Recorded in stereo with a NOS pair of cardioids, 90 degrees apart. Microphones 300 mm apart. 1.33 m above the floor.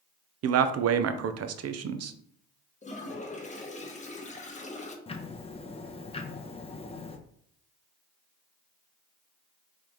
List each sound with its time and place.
0.4 s a man speaking: 55° right, 0.6 m
2.8 s a toilet flushing: 25° left, 0.9 m
5.1 s ticking: 20° left, 0.7 m